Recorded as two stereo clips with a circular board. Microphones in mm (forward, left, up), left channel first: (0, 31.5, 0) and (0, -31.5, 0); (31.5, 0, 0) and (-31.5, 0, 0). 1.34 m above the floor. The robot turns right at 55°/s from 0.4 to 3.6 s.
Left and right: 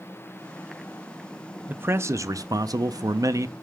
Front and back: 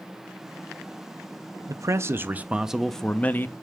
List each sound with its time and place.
1.7 s a man speaking: 150° right, 0.5 m; by 3.5 s 50° right, 0.5 m